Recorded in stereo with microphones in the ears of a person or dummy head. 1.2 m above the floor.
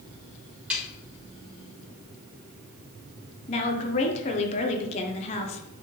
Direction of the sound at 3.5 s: 30° left (ahead or behind).